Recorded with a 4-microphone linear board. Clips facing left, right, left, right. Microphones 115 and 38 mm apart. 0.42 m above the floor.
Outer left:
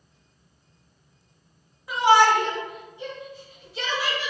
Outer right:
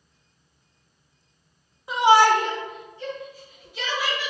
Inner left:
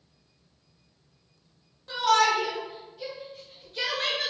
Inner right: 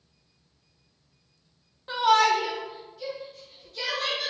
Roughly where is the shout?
Right.